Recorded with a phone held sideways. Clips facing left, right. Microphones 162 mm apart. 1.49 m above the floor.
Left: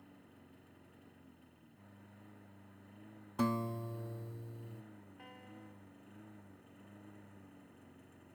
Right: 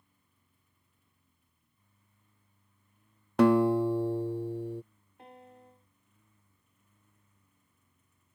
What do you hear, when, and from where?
0.0 s a lawn mower: 70° left (ahead or behind)
3.4 s a guitar: 75° right (ahead or behind)
5.2 s a piano: 25° right (ahead or behind)